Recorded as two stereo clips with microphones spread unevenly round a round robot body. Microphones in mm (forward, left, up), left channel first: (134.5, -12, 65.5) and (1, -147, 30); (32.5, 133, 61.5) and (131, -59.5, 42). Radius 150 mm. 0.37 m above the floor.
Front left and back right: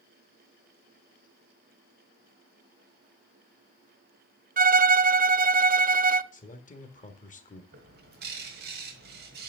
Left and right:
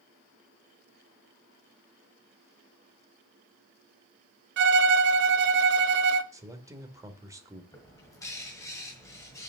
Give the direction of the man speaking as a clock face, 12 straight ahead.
12 o'clock.